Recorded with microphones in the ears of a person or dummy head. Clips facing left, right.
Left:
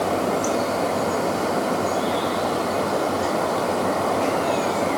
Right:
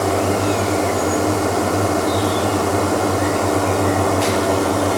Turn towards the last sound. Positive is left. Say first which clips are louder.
# right 4 dB
turn(degrees=-60)  # may be behind; listen again after turning